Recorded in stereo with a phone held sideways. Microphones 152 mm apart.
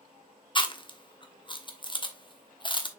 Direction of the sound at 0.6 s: 30° left (ahead or behind).